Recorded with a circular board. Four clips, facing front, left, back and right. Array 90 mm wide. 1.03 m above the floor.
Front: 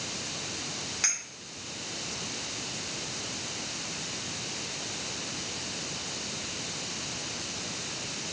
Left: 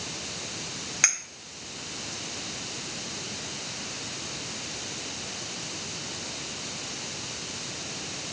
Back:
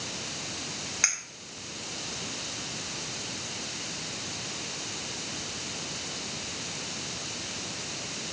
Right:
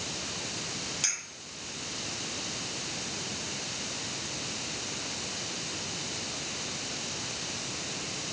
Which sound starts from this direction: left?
A clink, at 1.0 s.